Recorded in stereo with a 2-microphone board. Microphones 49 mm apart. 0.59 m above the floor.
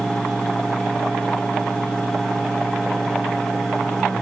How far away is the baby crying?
I don't hear a baby crying.